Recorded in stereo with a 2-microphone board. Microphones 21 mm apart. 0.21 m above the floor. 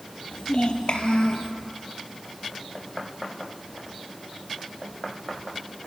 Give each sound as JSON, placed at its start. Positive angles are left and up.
{"t": 0.3, "sound": "a child speaking", "side_deg": 55, "distance_m": 4.0}